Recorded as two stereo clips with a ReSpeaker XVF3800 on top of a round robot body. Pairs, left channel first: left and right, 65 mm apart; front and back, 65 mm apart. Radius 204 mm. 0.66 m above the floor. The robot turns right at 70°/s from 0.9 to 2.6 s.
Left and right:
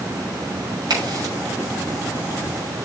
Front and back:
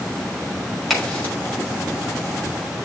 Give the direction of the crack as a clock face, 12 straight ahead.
3 o'clock.